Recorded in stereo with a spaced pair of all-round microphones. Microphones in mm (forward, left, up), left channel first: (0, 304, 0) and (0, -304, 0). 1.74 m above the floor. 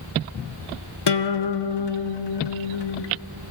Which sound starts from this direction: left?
A guitar, at 1.1 s.